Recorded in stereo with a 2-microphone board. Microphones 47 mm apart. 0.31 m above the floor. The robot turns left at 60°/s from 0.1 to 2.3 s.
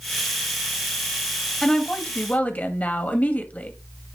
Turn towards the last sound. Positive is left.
turn(degrees=125)